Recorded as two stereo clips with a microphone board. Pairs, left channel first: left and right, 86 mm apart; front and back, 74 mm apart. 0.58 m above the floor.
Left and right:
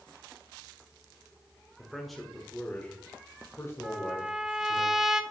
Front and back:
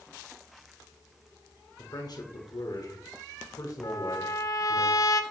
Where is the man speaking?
5° right, 1.8 m; by 4.8 s 55° left, 2 m.